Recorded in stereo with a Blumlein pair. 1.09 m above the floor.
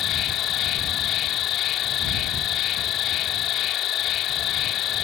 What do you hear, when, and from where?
0.0 s an insect: 35° left